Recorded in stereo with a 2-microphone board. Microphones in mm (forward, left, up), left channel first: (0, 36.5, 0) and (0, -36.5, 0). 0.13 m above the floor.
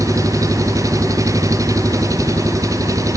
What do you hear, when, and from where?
0.0 s an engine running: 45° right (ahead or behind)